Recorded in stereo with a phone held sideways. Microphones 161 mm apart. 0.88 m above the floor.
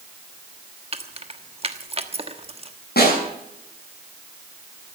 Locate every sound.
0.9 s keys jangling: 35° right (ahead or behind), 1.2 m
3.0 s a snare drum: 80° left, 8 m